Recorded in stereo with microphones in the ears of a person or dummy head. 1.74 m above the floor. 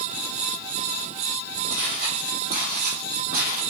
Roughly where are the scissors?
No scissors in this recording.